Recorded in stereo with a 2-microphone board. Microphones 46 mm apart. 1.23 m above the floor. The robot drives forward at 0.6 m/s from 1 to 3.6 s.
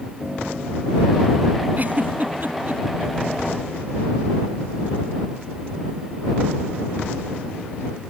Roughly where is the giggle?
Right.